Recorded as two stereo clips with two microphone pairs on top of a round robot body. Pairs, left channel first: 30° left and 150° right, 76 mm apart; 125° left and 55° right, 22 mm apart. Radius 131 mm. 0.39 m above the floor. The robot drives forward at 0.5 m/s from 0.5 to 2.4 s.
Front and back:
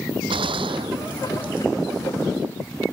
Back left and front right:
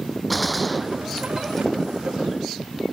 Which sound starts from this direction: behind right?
A gunshot, at 0.3 s.